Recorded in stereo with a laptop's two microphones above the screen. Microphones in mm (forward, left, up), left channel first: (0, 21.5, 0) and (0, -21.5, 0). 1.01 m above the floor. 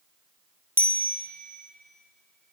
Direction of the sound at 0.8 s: 80° right.